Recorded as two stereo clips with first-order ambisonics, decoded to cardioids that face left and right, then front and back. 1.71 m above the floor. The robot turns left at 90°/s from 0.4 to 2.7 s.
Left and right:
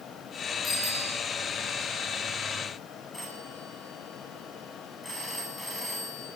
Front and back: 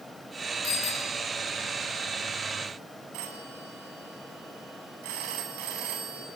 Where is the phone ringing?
170° left, 9 m.